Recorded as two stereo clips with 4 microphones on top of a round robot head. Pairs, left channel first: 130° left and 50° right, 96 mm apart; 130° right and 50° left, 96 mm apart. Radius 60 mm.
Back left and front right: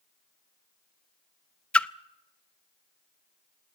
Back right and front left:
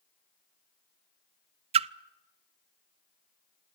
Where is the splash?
50° left, 0.6 m.